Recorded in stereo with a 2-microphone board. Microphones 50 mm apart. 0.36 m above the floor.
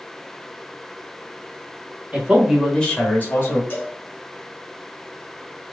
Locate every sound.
2.1 s a man speaking: 25° right (ahead or behind), 1.4 m; by 3.6 s 50° left (ahead or behind), 1.6 m
3.7 s a cowbell: 45° left (ahead or behind), 1.7 m